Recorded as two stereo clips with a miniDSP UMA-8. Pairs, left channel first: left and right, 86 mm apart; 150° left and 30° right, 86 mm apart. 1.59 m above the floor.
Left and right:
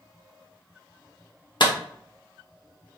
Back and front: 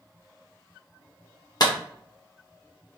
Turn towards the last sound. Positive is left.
turn(degrees=115)